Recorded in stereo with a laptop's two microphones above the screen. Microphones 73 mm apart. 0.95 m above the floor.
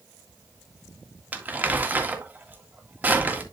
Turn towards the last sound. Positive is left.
turn(degrees=-20)  # may be behind; listen again after turning